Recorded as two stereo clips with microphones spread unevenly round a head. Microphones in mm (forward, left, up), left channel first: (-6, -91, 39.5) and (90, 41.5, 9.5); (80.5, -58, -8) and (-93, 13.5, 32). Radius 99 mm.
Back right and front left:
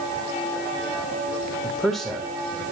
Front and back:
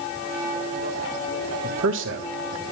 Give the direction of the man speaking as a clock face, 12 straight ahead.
7 o'clock.